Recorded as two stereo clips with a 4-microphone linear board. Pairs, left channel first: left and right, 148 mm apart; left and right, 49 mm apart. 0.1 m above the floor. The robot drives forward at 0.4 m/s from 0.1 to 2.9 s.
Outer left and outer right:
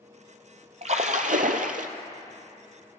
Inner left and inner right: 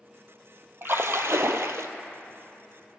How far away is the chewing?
I don't hear chewing.